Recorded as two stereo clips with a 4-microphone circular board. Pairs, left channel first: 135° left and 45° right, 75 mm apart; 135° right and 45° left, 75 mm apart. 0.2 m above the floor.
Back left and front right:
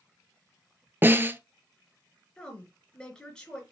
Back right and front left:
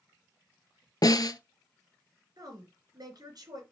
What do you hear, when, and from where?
1.0 s a snare drum: 105° right, 0.8 m
2.4 s a woman speaking: 60° left, 3 m